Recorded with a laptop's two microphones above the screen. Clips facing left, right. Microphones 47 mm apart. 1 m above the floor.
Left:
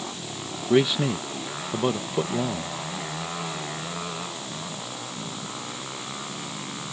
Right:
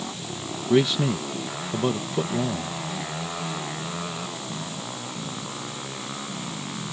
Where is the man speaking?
10° left (ahead or behind).